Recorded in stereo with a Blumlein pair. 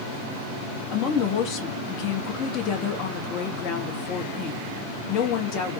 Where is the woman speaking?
35° left, 0.9 m.